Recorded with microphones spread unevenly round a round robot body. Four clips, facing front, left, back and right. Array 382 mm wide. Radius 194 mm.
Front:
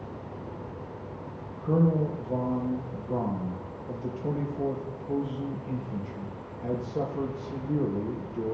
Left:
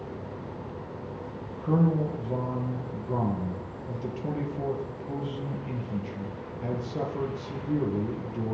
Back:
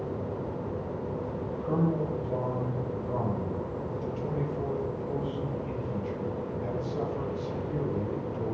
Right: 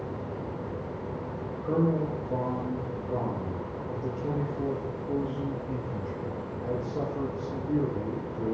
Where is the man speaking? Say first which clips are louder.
Left 1 dB, front 4 dB; 90° left, 8.5 m.